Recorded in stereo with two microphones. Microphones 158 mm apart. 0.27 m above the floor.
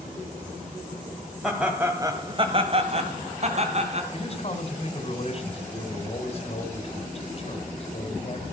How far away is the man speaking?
About 2.5 m.